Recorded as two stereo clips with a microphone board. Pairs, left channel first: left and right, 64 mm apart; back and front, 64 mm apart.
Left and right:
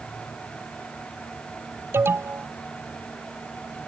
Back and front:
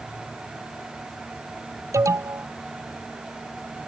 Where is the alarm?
40° right.